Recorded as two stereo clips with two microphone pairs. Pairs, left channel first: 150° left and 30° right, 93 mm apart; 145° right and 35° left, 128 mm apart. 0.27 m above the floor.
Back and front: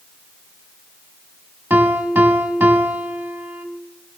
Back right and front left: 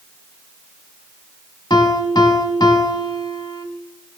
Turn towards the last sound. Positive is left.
turn(degrees=-95)